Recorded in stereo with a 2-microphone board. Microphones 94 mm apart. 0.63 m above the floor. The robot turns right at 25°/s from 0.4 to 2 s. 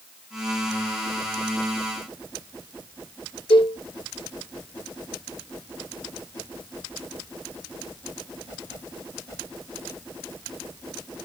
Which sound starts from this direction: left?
A cowbell, at 3.5 s.